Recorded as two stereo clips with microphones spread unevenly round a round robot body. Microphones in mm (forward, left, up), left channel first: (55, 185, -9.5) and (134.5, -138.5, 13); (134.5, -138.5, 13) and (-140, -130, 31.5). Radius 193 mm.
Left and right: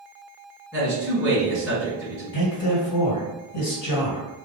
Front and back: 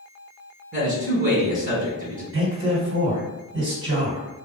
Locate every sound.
0.7 s a man speaking: 150° right, 1.4 m
2.3 s a man speaking: 130° left, 1.8 m